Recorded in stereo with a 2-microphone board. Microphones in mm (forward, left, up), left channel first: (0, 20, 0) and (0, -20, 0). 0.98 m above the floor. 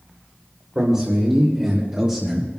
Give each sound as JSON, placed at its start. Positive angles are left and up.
{"t": 0.8, "sound": "a man speaking", "side_deg": -25, "distance_m": 3.0}